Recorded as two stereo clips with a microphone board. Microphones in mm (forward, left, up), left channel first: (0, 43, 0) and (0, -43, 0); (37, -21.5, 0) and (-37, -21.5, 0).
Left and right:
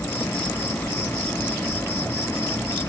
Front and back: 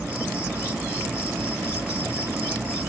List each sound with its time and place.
0.0 s an insect: 130° left, 1.9 m